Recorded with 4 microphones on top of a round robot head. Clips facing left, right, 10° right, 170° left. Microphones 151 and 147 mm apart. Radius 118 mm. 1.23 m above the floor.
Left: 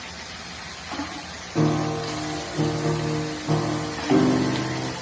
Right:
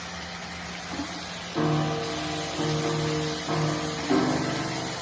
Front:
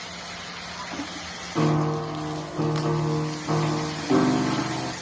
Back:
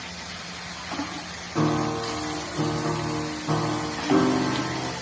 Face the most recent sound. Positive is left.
turn(degrees=70)